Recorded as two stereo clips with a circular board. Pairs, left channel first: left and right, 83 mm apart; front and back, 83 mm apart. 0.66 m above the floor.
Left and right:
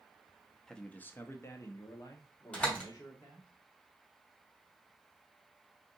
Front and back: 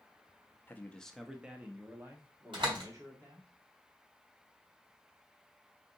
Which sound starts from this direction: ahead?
A man speaking, at 0.7 s.